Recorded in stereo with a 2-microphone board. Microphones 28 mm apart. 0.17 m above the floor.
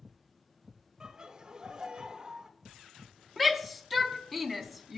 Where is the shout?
5° left (ahead or behind), 1.0 m.